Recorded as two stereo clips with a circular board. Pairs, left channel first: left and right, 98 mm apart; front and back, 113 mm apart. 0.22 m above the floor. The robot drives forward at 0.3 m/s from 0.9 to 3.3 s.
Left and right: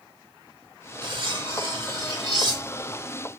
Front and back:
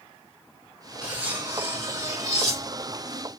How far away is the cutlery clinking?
About 1.2 m.